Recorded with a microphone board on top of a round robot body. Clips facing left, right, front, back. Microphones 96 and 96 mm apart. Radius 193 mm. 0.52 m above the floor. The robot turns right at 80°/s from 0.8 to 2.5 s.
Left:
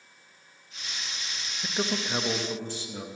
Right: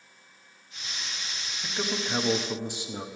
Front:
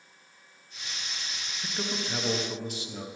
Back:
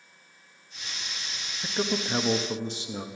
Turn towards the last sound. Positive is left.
turn(degrees=-150)